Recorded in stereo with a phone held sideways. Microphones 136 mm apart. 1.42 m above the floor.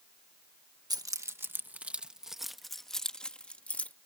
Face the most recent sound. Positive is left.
turn(degrees=10)  # may be behind; listen again after turning